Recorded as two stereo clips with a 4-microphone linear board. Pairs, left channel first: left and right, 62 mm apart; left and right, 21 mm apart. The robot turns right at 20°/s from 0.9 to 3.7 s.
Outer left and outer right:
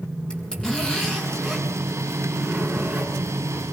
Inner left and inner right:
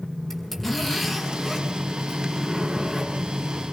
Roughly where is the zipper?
Behind.